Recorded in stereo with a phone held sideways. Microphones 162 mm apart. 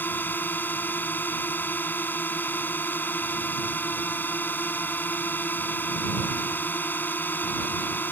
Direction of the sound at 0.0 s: 10° left (ahead or behind).